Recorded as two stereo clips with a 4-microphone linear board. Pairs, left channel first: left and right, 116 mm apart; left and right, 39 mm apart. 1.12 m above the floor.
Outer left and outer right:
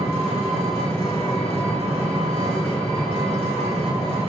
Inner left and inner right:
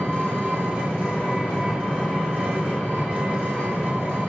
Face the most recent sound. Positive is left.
turn(degrees=-65)  # may be behind; listen again after turning